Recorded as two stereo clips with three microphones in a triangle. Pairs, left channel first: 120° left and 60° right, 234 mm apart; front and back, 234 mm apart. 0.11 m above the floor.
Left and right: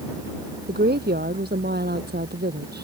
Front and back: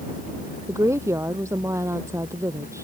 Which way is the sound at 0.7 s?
105° right.